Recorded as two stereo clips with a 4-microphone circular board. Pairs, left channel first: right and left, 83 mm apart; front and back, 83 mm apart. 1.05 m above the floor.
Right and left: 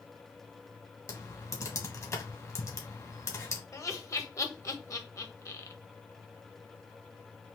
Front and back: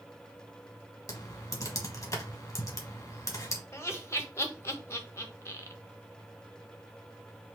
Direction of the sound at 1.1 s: 45° right.